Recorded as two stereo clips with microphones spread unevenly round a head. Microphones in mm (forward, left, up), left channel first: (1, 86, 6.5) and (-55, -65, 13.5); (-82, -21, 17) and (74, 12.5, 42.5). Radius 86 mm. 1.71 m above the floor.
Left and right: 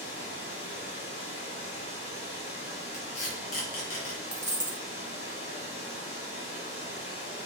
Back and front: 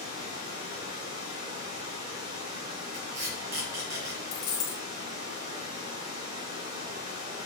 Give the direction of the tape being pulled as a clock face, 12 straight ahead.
11 o'clock.